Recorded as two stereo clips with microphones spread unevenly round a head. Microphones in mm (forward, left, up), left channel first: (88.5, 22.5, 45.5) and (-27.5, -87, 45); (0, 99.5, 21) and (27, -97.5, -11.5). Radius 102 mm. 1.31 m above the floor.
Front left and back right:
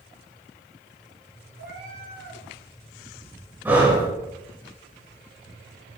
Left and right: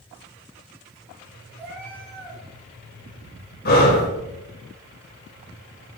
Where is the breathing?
145° left, 2.5 m.